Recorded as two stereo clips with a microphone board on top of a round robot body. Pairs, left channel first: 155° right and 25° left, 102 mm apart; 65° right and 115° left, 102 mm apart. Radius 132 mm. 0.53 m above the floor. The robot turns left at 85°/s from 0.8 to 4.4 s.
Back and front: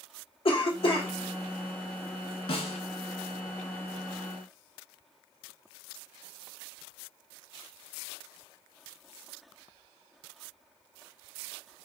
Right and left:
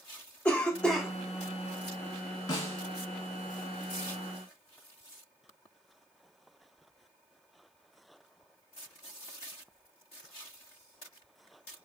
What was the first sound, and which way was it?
A cough, 145° right.